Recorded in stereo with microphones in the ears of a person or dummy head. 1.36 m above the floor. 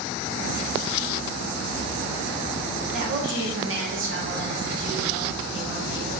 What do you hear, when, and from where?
2.9 s a woman speaking: 45° right (ahead or behind), 0.8 m; by 6.1 s 35° right (ahead or behind), 1.9 m